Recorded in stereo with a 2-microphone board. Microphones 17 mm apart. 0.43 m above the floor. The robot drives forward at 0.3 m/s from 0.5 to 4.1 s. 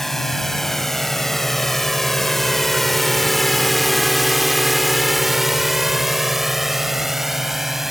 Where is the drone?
15° left (ahead or behind); by 7.9 s 15° right (ahead or behind).